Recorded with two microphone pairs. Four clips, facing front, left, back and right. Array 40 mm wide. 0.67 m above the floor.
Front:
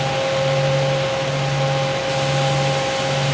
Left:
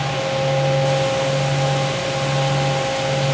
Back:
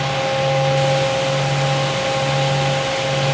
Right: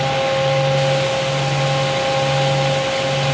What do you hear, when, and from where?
Only background noise.